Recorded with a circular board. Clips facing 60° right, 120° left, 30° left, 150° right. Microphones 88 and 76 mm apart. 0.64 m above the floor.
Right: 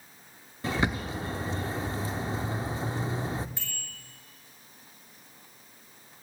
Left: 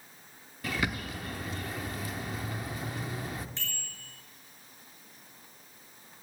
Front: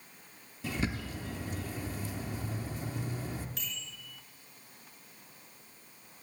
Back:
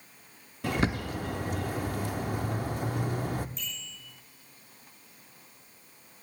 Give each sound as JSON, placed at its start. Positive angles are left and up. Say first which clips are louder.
{"t": 0.6, "sound": "a bird", "louder": "right 4 dB, back 6 dB", "azimuth_deg": -120, "distance_m": 0.6}
{"t": 3.6, "sound": "a bicycle bell", "louder": "left 1 dB, back 1 dB", "azimuth_deg": 20, "distance_m": 6.0}